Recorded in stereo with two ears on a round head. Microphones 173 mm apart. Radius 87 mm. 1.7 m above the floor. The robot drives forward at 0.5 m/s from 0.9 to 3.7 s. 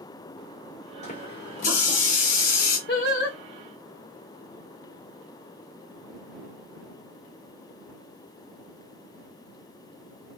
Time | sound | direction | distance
1.0 | a running tap | 40° left (ahead or behind) | 4 m
2.9 | singing | 55° left (ahead or behind) | 4 m